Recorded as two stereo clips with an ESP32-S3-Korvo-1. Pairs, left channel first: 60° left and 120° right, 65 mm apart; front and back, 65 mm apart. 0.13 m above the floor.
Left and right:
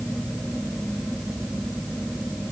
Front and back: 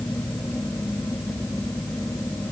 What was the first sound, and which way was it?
Only background noise.